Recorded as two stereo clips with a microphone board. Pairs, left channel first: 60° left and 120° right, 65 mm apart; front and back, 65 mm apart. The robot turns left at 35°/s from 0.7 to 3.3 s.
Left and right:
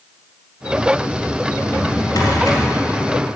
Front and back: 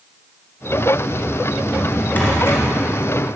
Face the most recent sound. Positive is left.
turn(degrees=20)